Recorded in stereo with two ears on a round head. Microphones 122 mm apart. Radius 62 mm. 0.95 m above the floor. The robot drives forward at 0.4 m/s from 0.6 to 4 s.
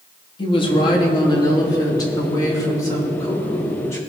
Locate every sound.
0.4 s a woman speaking: 40° left (ahead or behind), 1.5 m; by 4.0 s 20° left (ahead or behind), 2.5 m